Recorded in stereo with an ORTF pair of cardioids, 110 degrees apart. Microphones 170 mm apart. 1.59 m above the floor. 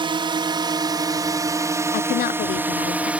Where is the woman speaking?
55° left.